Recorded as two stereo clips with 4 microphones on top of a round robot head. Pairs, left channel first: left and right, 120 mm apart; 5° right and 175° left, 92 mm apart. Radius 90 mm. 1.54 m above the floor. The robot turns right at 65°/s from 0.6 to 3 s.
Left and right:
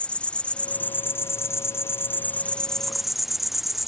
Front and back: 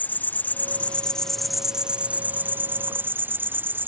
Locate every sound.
0.0 s an insect: 30° left; by 3.9 s 175° right